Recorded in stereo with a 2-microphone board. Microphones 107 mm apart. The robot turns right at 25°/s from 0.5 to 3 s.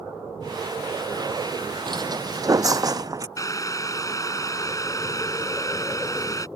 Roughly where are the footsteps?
Right.